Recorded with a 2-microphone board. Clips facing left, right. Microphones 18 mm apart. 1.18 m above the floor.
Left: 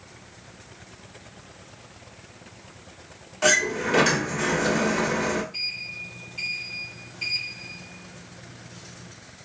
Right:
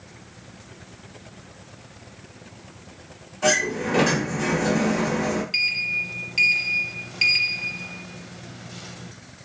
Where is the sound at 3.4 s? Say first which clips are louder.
Even; 55° left (ahead or behind), 1.3 m.